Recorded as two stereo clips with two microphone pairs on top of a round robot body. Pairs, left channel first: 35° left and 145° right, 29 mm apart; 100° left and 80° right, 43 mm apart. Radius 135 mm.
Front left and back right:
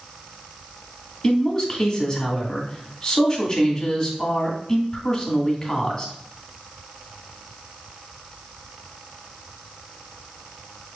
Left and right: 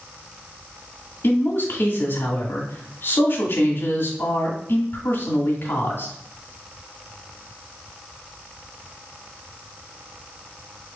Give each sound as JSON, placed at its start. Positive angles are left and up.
{"t": 1.2, "sound": "a man speaking", "azimuth_deg": 80, "distance_m": 1.8}